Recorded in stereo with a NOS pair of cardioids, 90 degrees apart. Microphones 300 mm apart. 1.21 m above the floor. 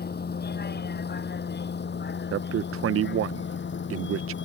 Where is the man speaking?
50° right.